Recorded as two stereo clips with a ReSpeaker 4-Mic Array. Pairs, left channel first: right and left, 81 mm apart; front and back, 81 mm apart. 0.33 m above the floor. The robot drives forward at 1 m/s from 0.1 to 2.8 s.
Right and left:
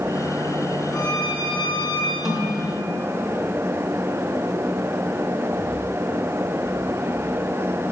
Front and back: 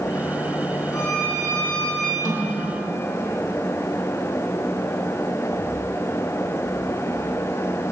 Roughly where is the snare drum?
Ahead.